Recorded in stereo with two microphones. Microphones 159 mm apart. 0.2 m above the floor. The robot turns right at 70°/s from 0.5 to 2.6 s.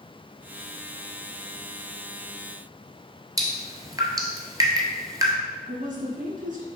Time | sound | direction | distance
3.4 | dripping | 25° right (ahead or behind) | 1.4 m
5.7 | a woman speaking | 55° right (ahead or behind) | 2.5 m